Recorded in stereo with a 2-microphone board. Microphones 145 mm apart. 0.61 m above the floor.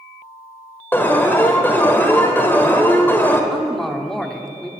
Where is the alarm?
15° left (ahead or behind), 1.5 m.